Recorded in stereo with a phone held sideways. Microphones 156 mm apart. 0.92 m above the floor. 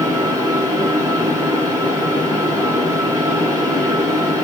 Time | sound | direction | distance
0.0 | a fan | 25° right (ahead or behind) | 1.1 m